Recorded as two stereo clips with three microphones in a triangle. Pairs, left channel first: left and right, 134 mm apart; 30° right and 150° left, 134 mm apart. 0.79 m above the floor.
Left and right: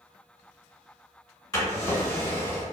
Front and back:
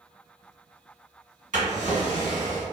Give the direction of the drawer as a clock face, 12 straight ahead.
7 o'clock.